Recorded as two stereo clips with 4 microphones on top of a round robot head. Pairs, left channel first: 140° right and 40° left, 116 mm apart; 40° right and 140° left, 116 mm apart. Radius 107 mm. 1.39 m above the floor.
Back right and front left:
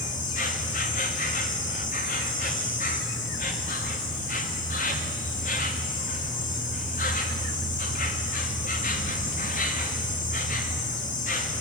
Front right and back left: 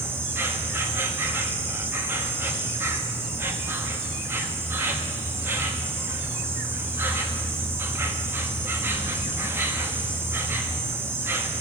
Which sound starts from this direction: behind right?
An insect, at 0.0 s.